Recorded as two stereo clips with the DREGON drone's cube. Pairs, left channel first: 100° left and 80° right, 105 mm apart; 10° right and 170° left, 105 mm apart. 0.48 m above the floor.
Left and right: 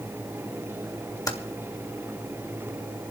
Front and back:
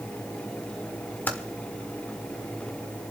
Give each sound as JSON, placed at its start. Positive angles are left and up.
{"t": 1.3, "sound": "typing on a keyboard", "azimuth_deg": 55, "distance_m": 1.5}